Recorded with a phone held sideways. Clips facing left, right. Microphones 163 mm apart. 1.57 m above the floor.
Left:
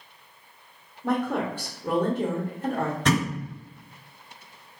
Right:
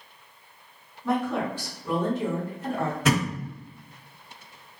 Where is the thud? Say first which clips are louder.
Even; 5° right (ahead or behind), 1.3 m.